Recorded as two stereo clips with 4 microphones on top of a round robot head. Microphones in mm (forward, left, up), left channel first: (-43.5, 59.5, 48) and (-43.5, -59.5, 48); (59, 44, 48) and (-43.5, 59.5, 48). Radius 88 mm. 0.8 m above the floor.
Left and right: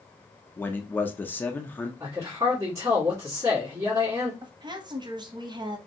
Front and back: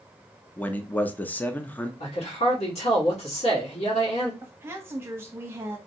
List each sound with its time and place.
0.6 s a man speaking: 40° left, 0.5 m
2.0 s a man speaking: 20° right, 1.7 m
4.4 s a woman speaking: 125° right, 0.7 m